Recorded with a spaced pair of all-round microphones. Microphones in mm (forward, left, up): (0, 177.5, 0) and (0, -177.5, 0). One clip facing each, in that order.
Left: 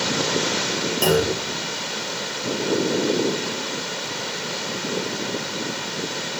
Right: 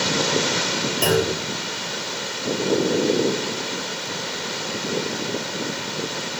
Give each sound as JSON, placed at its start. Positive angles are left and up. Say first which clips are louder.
{"t": 1.0, "sound": "a clunk", "louder": "left 1 dB", "side_deg": 55, "distance_m": 0.9}